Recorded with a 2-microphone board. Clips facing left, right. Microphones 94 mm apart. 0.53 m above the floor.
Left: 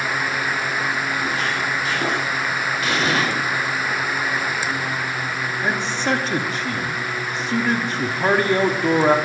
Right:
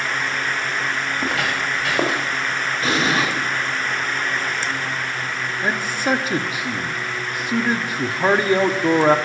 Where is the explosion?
35° right (ahead or behind), 6.5 m.